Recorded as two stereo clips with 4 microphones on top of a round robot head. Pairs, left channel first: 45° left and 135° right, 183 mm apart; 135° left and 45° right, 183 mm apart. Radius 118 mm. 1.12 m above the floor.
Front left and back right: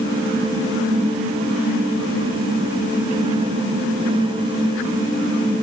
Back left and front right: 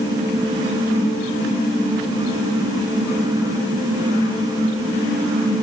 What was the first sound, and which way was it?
Only background noise.